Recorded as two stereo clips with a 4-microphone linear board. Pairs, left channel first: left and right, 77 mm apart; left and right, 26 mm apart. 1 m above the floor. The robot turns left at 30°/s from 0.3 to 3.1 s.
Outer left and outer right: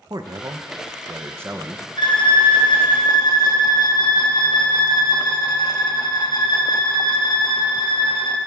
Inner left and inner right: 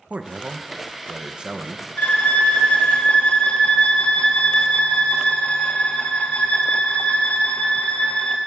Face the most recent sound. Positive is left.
turn(degrees=60)